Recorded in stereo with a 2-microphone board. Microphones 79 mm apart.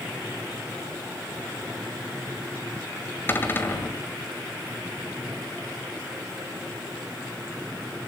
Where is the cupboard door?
30° left (ahead or behind), 2.0 m.